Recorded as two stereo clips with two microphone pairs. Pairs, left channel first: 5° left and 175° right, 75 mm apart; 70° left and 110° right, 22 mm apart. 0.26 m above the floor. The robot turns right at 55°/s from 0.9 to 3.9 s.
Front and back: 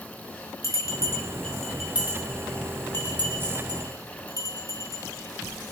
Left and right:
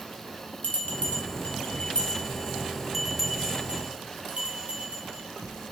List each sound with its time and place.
0.6 s a bell: 50° left, 2 m; by 5.7 s 145° right, 2 m